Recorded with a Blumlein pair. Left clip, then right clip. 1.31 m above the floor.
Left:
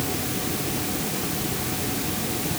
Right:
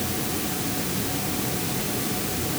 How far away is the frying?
I don't hear frying.